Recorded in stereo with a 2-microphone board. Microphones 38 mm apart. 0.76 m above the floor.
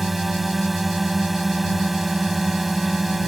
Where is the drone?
5° right (ahead or behind).